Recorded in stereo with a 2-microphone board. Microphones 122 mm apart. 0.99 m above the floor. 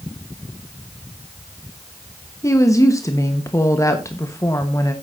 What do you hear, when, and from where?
2.4 s a woman speaking: 25° left (ahead or behind), 1.1 m